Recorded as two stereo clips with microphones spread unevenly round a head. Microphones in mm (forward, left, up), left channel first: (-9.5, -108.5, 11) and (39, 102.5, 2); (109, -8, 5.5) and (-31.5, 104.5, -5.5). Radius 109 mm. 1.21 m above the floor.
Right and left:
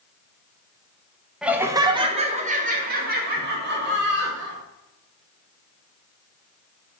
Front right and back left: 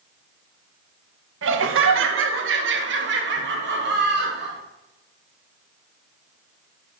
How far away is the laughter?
About 1.0 m.